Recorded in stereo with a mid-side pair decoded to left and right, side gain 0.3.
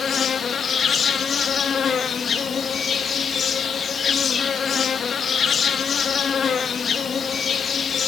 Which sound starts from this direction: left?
An insect, at 0.0 s.